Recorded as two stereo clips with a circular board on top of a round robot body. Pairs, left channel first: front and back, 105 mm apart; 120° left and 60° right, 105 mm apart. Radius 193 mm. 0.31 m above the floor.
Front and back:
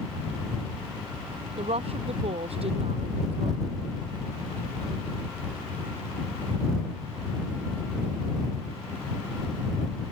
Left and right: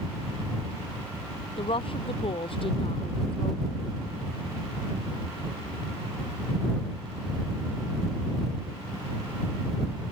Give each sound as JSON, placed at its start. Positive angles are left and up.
{"t": 1.6, "sound": "a woman speaking", "azimuth_deg": 155}